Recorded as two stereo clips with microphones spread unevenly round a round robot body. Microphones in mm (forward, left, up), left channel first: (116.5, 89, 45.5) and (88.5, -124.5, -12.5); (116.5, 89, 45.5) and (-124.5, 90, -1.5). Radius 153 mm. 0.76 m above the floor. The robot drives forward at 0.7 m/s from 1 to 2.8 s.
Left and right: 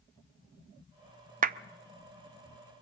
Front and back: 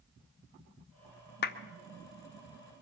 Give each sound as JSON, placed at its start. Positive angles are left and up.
{"t": 1.4, "sound": "a clap", "azimuth_deg": -55, "distance_m": 0.5}